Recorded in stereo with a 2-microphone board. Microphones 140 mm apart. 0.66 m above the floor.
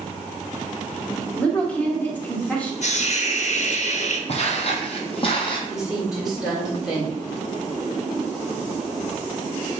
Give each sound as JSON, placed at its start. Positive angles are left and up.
{"t": 1.4, "sound": "a woman speaking", "side_deg": 10, "distance_m": 1.3}
{"t": 2.8, "sound": "a hiss", "side_deg": 55, "distance_m": 0.6}
{"t": 4.3, "sound": "footsteps", "side_deg": 50, "distance_m": 0.9}
{"t": 5.7, "sound": "a woman speaking", "side_deg": -5, "distance_m": 2.0}